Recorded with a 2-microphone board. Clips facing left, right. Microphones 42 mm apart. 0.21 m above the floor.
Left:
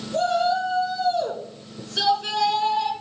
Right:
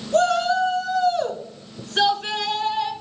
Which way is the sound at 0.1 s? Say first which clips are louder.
Right 3 dB; 55° right (ahead or behind).